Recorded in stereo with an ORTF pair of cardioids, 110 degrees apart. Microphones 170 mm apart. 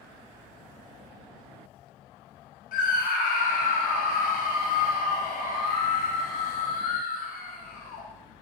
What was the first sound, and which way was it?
A scream, 60° left.